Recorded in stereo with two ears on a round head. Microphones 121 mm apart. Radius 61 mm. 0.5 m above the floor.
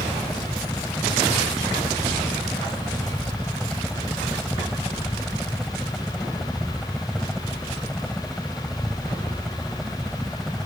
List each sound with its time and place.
0.0 s a helicopter: 5° left (ahead or behind)